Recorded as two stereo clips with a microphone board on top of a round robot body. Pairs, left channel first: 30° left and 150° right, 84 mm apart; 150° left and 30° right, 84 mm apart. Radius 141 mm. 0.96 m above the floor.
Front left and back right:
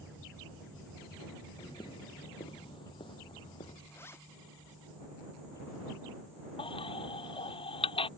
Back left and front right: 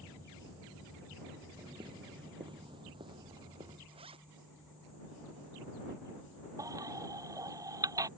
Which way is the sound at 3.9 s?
30° right.